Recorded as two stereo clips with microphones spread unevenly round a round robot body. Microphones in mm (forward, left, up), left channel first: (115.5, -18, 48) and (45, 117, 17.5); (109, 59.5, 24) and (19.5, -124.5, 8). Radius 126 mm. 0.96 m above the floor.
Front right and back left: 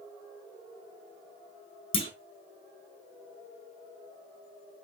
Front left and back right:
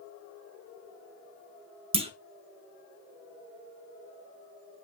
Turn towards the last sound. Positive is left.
turn(degrees=-60)